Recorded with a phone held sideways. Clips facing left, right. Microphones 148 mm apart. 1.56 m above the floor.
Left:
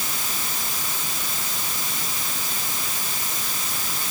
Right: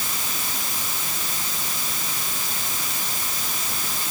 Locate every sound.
Only background noise.